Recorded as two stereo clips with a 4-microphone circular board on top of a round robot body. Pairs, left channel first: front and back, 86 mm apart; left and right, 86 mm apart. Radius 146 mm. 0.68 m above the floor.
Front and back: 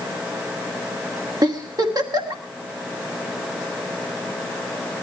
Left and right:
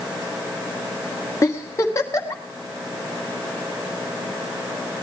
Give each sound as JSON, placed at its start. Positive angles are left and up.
{"t": 1.4, "sound": "a giggle", "azimuth_deg": 145, "distance_m": 2.5}